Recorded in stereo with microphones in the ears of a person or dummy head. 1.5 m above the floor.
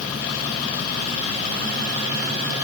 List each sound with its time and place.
Only background noise.